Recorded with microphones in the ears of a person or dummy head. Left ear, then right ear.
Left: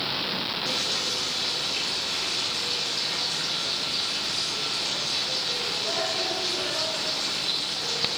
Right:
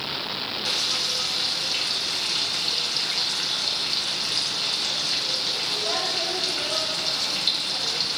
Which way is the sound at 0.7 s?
65° right (ahead or behind).